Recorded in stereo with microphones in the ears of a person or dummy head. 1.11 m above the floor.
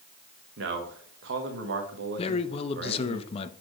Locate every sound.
0.6 s a man speaking: 60° right (ahead or behind), 1.4 m
2.2 s a man speaking: 35° left (ahead or behind), 0.6 m